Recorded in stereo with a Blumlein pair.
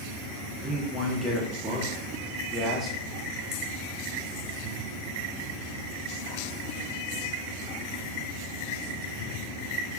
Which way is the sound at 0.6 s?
5° right.